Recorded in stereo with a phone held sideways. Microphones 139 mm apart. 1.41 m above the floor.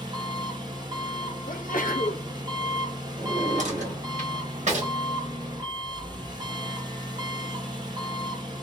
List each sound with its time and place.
0.0 s an engine running: 30° right (ahead or behind), 0.9 m
1.5 s a sneeze: 75° left (ahead or behind), 0.7 m
3.2 s a drawer: 55° right (ahead or behind), 1.2 m